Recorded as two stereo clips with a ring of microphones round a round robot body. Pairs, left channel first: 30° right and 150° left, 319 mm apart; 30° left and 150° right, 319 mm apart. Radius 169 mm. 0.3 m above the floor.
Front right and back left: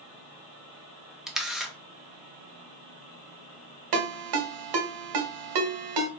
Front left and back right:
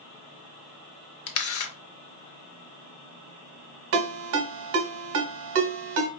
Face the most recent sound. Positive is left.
turn(degrees=165)